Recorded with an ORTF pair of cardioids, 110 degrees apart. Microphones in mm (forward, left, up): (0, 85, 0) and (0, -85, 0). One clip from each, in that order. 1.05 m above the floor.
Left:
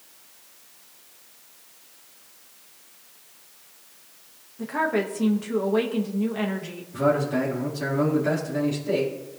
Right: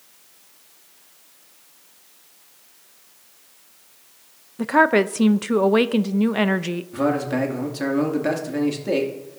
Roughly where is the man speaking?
Ahead right.